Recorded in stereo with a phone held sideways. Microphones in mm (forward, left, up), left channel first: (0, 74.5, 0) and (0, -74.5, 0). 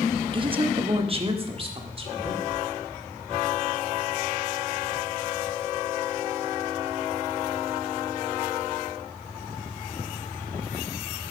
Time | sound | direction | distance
0.3 | a woman speaking | 35° right (ahead or behind) | 0.7 m